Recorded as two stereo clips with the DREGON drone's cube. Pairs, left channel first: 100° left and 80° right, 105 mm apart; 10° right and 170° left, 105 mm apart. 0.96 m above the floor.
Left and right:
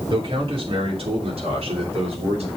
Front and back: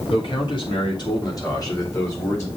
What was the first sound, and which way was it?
A man speaking, 45° right.